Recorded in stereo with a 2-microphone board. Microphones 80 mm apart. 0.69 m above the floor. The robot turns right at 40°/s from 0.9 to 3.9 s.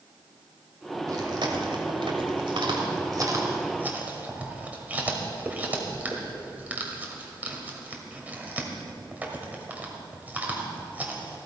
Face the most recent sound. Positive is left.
turn(degrees=-20)  # may be behind; listen again after turning